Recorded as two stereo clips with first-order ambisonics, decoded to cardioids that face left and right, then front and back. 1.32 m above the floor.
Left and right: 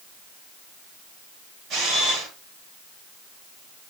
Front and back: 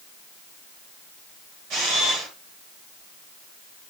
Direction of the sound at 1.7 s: 145° right.